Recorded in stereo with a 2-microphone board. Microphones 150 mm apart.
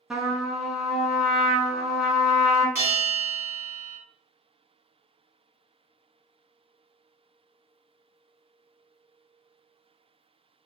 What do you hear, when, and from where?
0.1 s a trumpet: 5° right (ahead or behind), 0.6 m
2.8 s a bell: 15° right (ahead or behind), 1.5 m